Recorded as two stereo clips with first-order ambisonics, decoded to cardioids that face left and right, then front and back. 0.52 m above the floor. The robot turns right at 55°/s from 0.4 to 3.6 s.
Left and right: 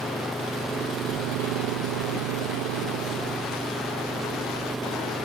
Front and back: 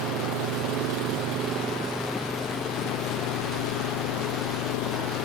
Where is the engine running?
Straight behind; by 5.3 s 5° right.